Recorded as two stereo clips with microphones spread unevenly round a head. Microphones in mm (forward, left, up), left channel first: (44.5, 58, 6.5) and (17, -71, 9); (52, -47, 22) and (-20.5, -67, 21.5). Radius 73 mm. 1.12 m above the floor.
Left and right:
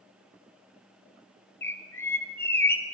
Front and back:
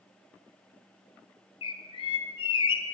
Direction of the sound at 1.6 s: 5° left.